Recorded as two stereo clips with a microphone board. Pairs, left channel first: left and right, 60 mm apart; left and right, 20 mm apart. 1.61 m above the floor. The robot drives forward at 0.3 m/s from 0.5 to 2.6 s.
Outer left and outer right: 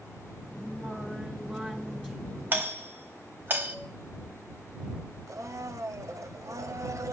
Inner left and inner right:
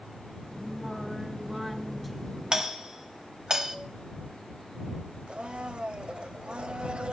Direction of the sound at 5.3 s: 60° right (ahead or behind).